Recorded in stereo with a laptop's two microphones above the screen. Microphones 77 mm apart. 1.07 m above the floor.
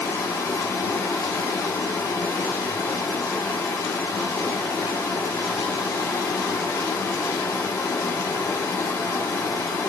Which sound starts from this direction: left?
Running water, at 0.0 s.